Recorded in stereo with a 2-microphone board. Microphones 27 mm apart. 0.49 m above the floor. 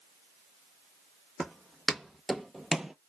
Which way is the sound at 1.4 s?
5° left (ahead or behind).